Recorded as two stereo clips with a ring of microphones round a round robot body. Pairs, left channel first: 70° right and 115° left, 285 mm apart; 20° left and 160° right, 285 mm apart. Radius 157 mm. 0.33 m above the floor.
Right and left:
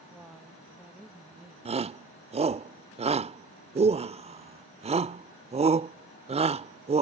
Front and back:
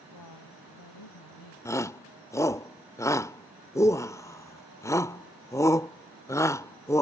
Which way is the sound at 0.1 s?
25° left.